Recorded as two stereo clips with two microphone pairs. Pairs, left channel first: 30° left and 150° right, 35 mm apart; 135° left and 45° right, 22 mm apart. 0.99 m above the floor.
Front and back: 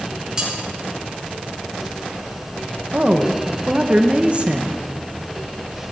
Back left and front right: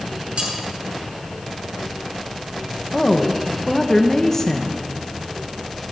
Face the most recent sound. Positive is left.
turn(degrees=-170)